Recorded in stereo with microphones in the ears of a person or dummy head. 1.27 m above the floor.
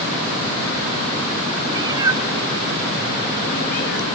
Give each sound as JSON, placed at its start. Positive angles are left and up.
{"t": 1.7, "sound": "a cat meowing", "side_deg": -20, "distance_m": 1.8}